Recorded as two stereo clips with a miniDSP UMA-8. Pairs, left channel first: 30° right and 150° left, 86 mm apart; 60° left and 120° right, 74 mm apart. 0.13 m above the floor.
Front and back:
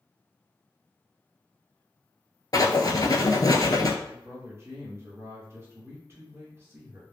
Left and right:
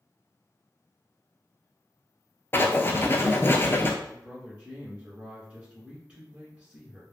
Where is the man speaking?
175° left, 2.0 m.